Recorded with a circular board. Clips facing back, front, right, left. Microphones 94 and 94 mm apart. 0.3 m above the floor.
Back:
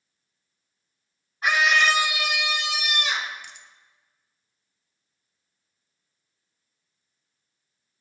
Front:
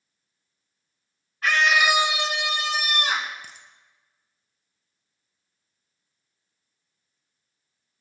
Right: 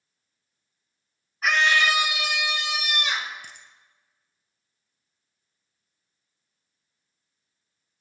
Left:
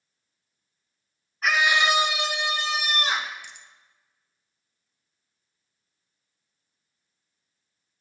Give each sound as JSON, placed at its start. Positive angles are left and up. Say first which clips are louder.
{"t": 1.4, "sound": "a scream", "louder": "even, even", "azimuth_deg": -175, "distance_m": 0.9}
{"t": 3.4, "sound": "a dropped coin", "louder": "even, even", "azimuth_deg": -45, "distance_m": 1.4}